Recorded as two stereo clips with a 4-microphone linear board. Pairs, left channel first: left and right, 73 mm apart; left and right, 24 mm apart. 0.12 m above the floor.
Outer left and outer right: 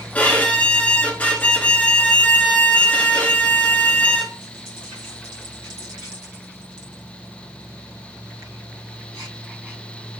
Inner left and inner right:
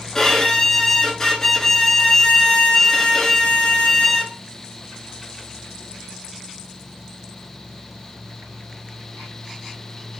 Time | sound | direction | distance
0.1 | a violin | 20° left (ahead or behind) | 0.8 m